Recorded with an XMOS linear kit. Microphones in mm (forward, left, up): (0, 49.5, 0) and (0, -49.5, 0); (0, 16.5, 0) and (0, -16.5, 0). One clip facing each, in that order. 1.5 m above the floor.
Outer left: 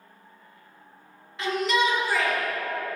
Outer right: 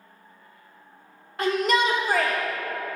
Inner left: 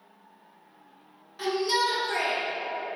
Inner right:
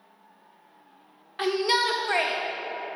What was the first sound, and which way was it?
A shout, 50° right (ahead or behind).